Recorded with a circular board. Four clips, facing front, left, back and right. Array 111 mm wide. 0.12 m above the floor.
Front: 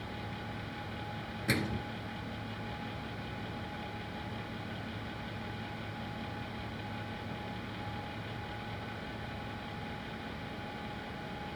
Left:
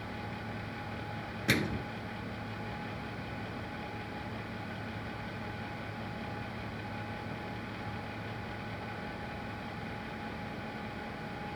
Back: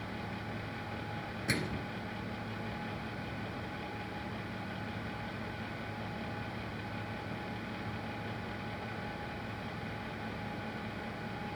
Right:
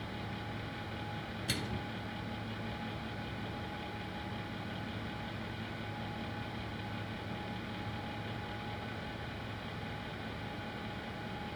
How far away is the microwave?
About 1.4 m.